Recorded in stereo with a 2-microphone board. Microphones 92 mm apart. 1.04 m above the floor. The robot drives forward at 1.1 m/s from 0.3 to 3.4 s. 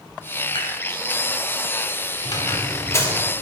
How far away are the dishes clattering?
About 3.5 m.